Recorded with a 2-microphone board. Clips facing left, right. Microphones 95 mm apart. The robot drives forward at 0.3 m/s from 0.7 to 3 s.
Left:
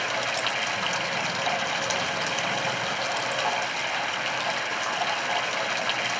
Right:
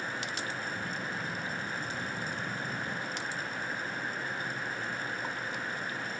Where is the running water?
85° left; by 6.2 s 90° left.